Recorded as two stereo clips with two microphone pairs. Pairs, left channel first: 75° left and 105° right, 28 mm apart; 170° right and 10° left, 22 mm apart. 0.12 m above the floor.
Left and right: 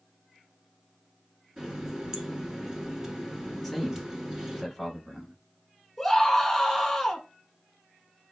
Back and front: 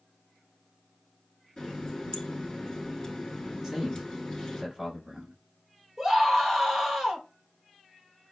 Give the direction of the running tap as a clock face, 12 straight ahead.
5 o'clock.